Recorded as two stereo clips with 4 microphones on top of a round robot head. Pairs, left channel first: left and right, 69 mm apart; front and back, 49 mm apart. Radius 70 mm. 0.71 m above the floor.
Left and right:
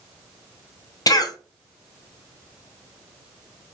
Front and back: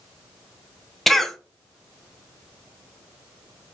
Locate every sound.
1.1 s a cough: 85° left, 0.8 m